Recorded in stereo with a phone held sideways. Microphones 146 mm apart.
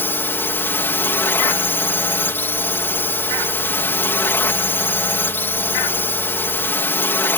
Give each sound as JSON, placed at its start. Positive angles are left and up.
{"t": 0.0, "sound": "a drone", "side_deg": 15}